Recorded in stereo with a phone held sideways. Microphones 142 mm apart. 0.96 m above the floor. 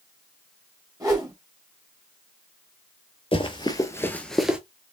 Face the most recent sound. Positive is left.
turn(degrees=-10)  # may be behind; listen again after turning